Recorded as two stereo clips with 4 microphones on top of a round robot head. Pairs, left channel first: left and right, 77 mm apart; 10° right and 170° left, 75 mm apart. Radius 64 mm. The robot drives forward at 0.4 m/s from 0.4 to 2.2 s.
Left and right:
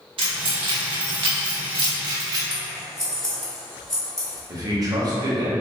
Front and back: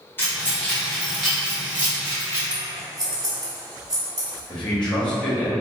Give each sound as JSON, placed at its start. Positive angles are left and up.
{"t": 0.2, "sound": "keys jangling", "azimuth_deg": -75, "distance_m": 0.8}
{"t": 2.5, "sound": "scissors", "azimuth_deg": 170, "distance_m": 1.8}
{"t": 4.5, "sound": "a man speaking", "azimuth_deg": -85, "distance_m": 1.0}